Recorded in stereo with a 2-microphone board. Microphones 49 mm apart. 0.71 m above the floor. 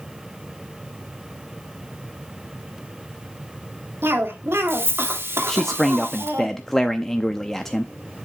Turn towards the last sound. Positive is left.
turn(degrees=5)  # may be behind; listen again after turning